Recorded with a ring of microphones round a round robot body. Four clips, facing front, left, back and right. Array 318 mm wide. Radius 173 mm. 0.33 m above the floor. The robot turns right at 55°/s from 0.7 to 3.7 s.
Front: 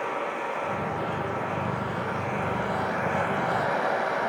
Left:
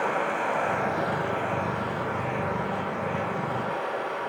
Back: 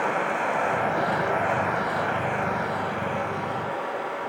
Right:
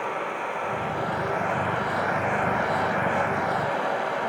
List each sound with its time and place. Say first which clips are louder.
0.0 s running water: left 3 dB, back 5 dB; 155° left, 1.6 m; by 4.3 s 40° right, 1.6 m